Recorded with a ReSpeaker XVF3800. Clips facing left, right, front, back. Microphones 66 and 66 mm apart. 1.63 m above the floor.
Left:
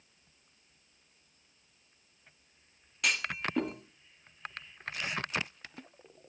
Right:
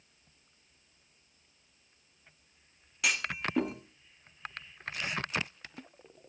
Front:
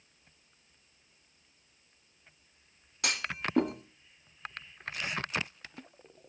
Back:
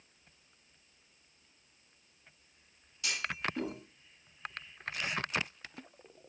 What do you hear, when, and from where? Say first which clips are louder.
3.0 s a clunk: even, front 2 dB; 5° right, 1.8 m